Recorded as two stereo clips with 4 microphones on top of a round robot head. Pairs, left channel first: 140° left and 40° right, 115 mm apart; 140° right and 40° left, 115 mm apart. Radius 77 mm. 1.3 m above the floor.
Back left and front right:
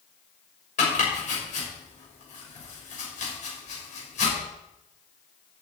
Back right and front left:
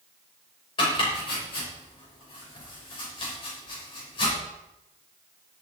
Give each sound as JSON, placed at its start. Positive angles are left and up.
{"t": 0.8, "sound": "chopping", "azimuth_deg": 170, "distance_m": 6.5}